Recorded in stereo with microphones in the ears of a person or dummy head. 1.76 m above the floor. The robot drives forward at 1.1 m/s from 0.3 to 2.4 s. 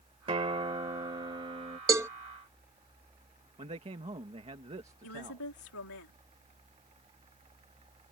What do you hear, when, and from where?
0.3 s a guitar: 25° right (ahead or behind); by 1.8 s 20° right (ahead or behind)
1.9 s a cowbell: 15° right (ahead or behind)
3.6 s a man speaking: 25° right (ahead or behind)
5.0 s a woman speaking: 85° left